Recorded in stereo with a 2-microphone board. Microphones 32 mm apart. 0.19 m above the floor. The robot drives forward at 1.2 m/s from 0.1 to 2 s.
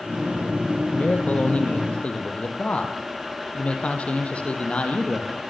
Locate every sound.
0.9 s a man speaking: 50° left (ahead or behind), 4.5 m; by 5.4 s 40° left (ahead or behind), 5 m